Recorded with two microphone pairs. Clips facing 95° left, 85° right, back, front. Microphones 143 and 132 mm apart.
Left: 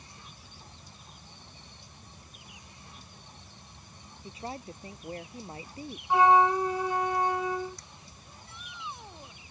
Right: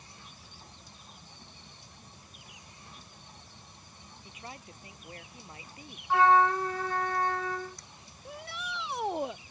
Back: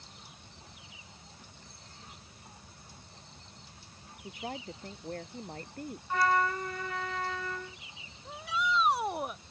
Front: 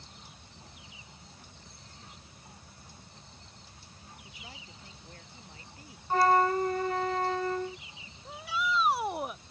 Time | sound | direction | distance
4.2 | a woman speaking | 150° left | ?
6.1 | a flute | 25° left | ?
8.2 | a shout | 85° right | ?